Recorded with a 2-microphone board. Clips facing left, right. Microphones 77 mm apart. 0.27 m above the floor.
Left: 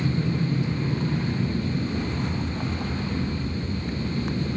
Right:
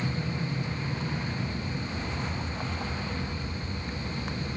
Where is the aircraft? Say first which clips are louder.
Left 6 dB; 50° left (ahead or behind).